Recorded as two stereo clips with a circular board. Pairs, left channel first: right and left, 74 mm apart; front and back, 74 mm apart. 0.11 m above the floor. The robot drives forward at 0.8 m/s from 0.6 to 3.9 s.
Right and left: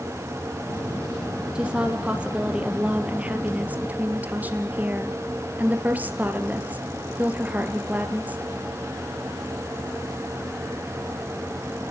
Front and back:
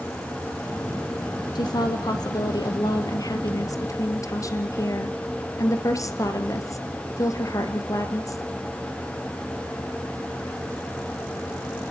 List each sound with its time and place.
1.6 s a woman speaking: 15° left, 4 m; by 8.4 s 25° left, 2.5 m